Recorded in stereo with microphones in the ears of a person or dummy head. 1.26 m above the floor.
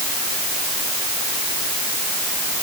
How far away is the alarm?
No alarm in this recording.